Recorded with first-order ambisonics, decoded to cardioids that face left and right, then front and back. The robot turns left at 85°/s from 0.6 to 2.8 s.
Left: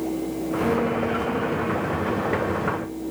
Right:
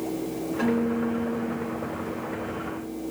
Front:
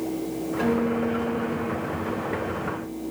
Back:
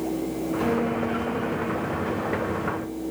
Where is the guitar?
40° right, 4 m; by 2.9 s 135° left, 4 m.